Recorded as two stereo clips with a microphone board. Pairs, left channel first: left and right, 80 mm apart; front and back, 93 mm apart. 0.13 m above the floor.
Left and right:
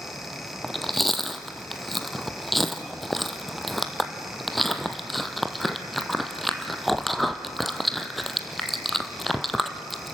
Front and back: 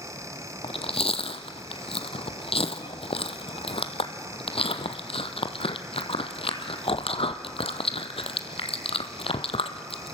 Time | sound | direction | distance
0.6 | chewing | straight ahead | 1.1 m